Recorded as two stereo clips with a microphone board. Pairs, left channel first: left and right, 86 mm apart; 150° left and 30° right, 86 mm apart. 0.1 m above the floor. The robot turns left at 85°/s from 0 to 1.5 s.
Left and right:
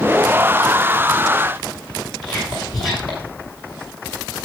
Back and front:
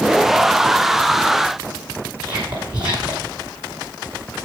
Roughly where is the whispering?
Ahead.